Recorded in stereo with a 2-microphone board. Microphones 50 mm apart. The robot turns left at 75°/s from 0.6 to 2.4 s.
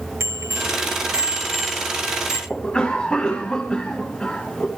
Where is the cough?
25° left (ahead or behind), 2 m.